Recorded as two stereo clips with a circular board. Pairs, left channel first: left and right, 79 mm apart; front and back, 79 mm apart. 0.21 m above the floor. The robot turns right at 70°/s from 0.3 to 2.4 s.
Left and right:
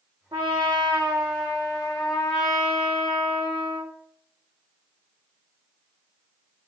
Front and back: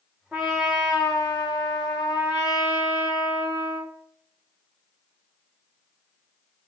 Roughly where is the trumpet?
Right.